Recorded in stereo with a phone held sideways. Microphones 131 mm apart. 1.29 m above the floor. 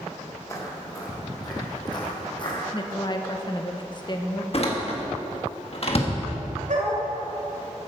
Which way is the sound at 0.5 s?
25° left (ahead or behind).